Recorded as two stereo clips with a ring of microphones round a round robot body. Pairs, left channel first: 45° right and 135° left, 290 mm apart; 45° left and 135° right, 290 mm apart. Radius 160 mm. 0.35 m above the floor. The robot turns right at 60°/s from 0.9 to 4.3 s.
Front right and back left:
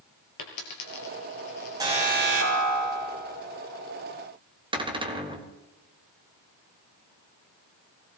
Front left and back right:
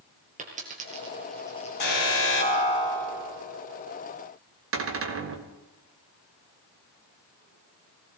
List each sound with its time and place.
0.4 s a dropped coin: 70° right, 3.5 m; by 2.6 s 35° left, 3.5 m
1.8 s an alarm: 60° left, 4 m; by 3.4 s 155° left, 4 m
4.7 s a cupboard door: 155° right, 1.8 m